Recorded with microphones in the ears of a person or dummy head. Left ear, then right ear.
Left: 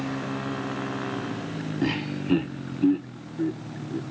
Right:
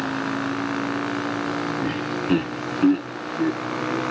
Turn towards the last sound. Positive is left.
turn(degrees=-55)  # may be behind; listen again after turning